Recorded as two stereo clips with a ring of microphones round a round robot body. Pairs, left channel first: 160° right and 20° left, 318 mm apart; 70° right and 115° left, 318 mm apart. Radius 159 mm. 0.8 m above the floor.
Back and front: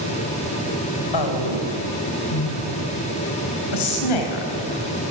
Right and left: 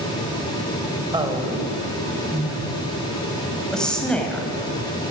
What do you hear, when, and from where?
1.1 s a woman speaking: 170° right, 4 m; by 4.5 s 150° right, 5.5 m